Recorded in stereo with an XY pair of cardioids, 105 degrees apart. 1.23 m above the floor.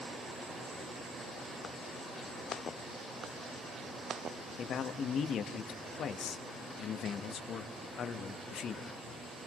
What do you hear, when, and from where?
4.6 s a man speaking: 60° left, 1.4 m